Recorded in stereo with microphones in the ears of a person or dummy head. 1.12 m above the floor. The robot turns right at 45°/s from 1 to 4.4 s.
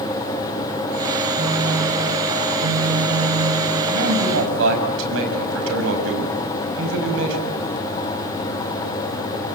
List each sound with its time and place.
1.4 s a phone buzzing: 165° right, 0.9 m; by 3.7 s 60° right, 0.9 m
3.9 s a man speaking: 80° right, 6 m